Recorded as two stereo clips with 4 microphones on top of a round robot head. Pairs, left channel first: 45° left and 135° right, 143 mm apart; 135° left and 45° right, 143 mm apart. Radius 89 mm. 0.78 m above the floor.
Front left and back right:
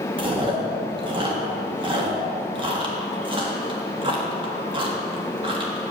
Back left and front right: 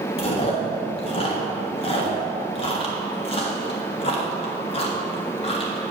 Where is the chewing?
175° left, 1.5 m.